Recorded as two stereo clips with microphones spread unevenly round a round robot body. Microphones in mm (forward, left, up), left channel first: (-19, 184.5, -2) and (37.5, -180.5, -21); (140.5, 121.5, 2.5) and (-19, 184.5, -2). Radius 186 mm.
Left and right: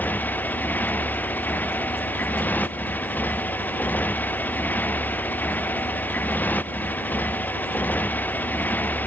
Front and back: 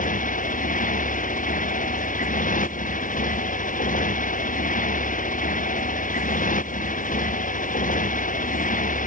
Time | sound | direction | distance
0.0 | a motorcycle | 15° left | ?